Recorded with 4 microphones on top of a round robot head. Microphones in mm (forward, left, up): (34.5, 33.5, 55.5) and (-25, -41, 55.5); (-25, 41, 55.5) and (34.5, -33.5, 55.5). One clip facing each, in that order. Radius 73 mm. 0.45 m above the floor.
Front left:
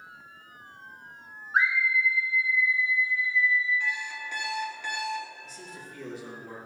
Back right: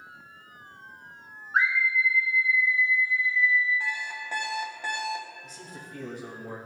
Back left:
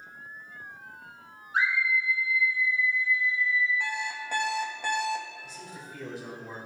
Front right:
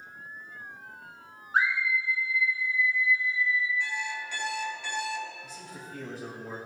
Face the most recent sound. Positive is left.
turn(degrees=-95)